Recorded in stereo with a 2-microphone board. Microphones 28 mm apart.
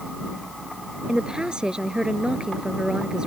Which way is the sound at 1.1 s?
25° right (ahead or behind).